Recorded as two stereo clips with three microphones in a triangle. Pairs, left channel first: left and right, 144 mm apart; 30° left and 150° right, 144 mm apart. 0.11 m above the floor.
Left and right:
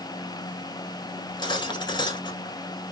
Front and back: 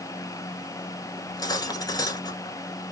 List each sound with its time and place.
1.2 s cutlery clinking: 65° left, 0.7 m